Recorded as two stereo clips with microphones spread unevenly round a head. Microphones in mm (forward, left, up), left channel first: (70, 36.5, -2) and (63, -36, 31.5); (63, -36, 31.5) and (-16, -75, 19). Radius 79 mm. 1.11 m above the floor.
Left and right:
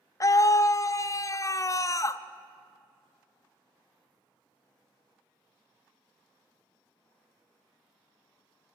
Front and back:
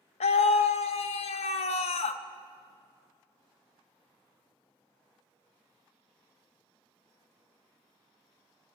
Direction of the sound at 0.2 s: 40° left.